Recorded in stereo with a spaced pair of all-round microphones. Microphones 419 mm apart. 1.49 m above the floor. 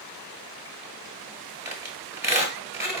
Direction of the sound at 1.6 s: 5° right (ahead or behind).